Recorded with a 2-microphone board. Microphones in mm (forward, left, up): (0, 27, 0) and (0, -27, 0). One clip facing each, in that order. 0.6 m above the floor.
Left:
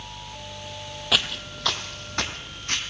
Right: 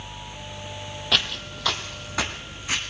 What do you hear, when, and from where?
1.1 s footsteps: 5° left (ahead or behind), 1.2 m; by 2.8 s 10° right (ahead or behind), 2 m